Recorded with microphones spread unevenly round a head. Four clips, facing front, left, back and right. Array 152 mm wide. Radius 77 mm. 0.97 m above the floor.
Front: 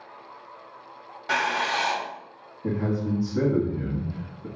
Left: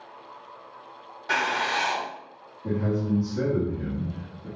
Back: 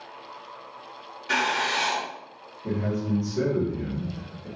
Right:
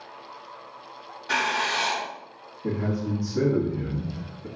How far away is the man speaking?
About 1.5 m.